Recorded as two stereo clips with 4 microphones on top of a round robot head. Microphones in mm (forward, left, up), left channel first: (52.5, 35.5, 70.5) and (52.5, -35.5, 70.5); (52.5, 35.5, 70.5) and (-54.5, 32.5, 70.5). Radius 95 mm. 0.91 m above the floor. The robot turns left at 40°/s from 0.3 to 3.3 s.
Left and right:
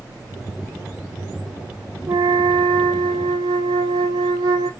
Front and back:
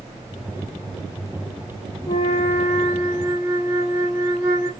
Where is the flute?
55° right, 0.5 m; by 4.7 s 105° right, 0.5 m.